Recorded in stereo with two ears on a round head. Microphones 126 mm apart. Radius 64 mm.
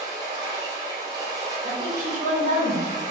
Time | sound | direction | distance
0.0 | running water | 25° right (ahead or behind) | 1.3 m
1.6 | a woman speaking | 45° right (ahead or behind) | 1.5 m